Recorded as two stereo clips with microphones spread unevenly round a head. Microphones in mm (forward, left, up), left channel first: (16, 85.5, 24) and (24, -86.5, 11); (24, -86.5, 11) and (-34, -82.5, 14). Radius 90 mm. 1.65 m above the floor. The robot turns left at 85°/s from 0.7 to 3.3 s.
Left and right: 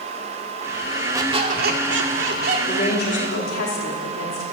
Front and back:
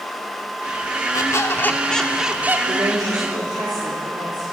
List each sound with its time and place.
1.1 s a squeak: 15° right, 2.0 m; by 2.6 s 135° right, 2.0 m
2.7 s a woman speaking: 165° left, 4 m; by 4.4 s 110° left, 4 m